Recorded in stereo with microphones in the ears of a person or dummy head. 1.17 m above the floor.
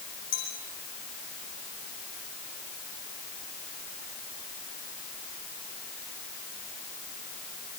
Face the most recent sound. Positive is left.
turn(degrees=40)  # may be behind; listen again after turning